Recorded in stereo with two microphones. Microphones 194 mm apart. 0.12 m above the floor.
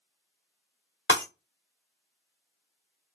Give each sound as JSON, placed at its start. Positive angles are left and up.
{"t": 1.1, "sound": "breaking glass", "side_deg": 85, "distance_m": 2.5}